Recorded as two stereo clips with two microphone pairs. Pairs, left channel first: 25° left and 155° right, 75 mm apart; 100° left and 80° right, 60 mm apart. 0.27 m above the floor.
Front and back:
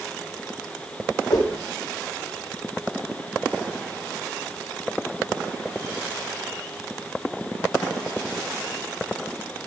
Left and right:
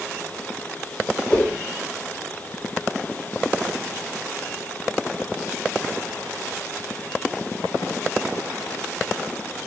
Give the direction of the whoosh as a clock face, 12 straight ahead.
11 o'clock.